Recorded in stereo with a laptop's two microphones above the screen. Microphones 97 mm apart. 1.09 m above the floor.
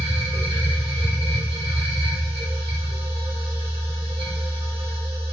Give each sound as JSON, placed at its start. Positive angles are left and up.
{"t": 0.0, "sound": "a machine running", "side_deg": -65, "distance_m": 1.0}